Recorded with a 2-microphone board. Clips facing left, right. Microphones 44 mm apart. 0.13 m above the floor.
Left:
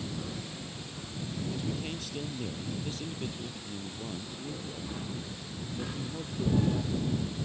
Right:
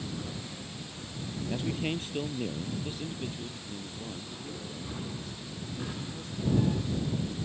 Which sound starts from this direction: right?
A man speaking, at 1.5 s.